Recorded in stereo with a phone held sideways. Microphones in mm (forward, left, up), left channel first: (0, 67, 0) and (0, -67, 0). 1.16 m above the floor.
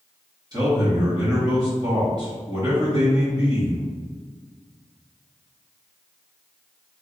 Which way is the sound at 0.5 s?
30° right (ahead or behind).